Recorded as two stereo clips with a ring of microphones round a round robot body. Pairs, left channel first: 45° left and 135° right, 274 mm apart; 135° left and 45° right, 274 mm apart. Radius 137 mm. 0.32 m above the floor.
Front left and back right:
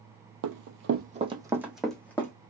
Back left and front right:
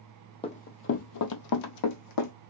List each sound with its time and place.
0.4 s running footsteps: 155° right, 0.6 m; by 2.3 s 125° left, 1.0 m